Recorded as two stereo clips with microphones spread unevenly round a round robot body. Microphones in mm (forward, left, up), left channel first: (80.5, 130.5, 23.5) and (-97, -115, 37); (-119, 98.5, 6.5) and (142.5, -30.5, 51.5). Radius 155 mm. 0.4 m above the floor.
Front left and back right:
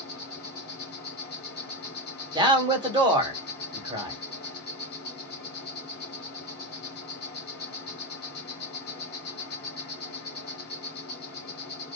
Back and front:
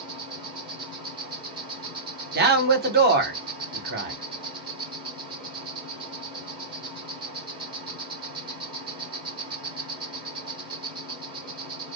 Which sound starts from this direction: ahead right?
A man speaking, at 2.4 s.